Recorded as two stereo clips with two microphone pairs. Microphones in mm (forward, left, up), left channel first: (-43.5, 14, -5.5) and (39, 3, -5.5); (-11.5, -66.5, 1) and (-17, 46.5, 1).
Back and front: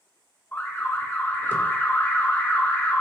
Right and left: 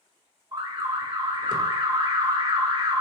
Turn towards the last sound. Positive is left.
turn(degrees=115)